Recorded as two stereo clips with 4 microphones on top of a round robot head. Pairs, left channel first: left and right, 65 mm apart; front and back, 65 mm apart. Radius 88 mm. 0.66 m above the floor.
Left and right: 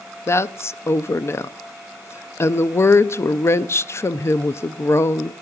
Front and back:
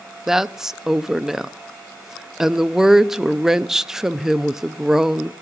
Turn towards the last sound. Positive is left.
turn(degrees=100)